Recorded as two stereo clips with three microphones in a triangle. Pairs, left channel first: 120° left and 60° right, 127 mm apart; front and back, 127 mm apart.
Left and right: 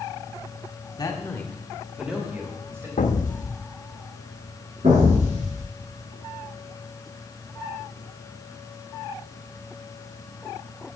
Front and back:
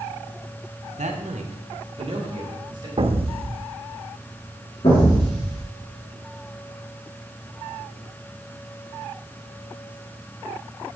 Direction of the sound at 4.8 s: 40° right.